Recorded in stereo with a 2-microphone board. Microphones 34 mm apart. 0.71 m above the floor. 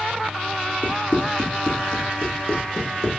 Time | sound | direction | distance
0.8 | running footsteps | 45° left (ahead or behind) | 3.5 m